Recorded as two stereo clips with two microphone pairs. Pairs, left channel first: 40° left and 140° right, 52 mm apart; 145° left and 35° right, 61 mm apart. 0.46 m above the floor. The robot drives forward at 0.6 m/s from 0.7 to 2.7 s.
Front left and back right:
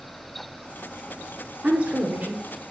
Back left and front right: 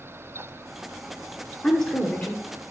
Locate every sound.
1.6 s a woman speaking: 145° right, 0.9 m; by 2.4 s 165° right, 1.1 m